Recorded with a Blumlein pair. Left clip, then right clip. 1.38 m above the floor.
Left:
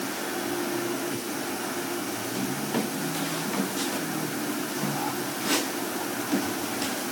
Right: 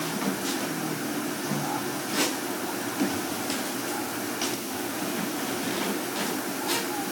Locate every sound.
Only background noise.